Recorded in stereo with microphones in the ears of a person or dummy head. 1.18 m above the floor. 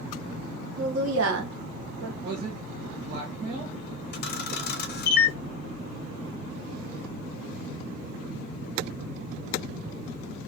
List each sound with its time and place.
0.8 s a woman speaking: 65° right (ahead or behind), 0.7 m; by 2.1 s 80° right, 1.2 m
2.2 s a man speaking: 30° right (ahead or behind), 0.6 m
4.1 s a camera shutter: 45° left (ahead or behind), 0.6 m